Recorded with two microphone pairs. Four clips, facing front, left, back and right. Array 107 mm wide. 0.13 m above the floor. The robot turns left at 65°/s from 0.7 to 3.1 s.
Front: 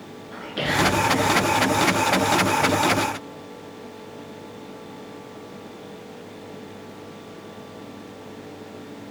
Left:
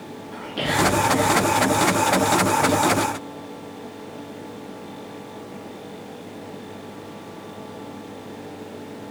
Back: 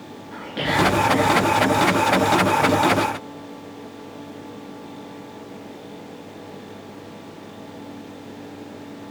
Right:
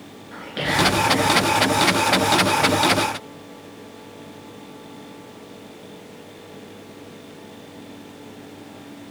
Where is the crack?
I don't hear a crack.